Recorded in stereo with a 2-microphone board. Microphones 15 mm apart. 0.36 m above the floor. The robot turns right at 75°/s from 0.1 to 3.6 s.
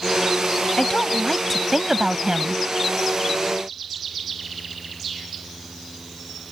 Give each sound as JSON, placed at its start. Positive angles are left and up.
{"t": 0.8, "sound": "a woman speaking", "azimuth_deg": 120}